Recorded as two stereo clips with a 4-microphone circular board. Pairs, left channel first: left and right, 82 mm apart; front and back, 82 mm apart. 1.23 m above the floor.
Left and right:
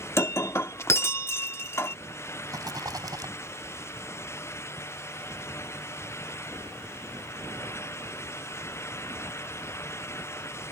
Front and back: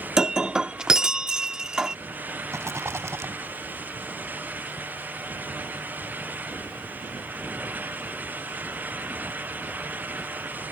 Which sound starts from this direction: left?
Breaking glass, at 0.2 s.